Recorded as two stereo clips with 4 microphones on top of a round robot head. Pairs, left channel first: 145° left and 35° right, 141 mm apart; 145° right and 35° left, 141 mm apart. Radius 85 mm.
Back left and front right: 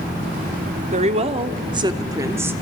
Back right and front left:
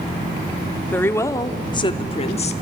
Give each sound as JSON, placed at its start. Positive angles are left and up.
{"t": 0.9, "sound": "a woman speaking", "azimuth_deg": -70, "distance_m": 1.8}